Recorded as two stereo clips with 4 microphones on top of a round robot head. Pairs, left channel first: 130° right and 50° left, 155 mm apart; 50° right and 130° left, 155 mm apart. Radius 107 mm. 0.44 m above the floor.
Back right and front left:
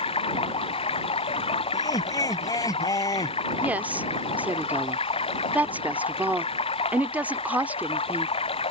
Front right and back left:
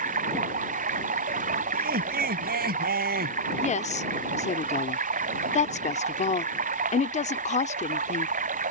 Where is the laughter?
160° left.